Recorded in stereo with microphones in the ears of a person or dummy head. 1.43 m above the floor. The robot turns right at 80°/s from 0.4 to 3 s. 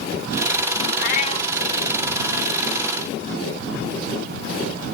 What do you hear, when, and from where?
1.0 s a cat meowing: 125° left; by 1.5 s 165° left